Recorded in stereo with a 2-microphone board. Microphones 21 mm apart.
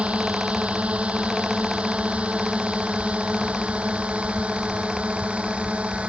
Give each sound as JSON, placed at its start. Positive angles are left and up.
{"t": 0.0, "sound": "a drone", "side_deg": -70}